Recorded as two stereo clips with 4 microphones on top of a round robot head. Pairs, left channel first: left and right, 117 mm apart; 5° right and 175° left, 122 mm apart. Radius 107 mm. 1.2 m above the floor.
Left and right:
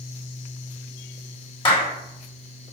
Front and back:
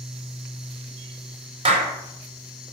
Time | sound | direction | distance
1.6 | a clap | 135° left | 4.5 m